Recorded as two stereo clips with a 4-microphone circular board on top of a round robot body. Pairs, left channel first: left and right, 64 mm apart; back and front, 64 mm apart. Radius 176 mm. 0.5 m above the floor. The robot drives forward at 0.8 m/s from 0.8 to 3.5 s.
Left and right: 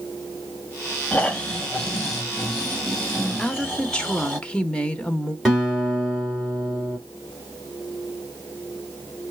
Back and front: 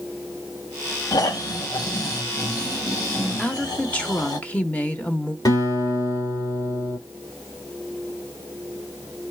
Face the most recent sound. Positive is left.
turn(degrees=180)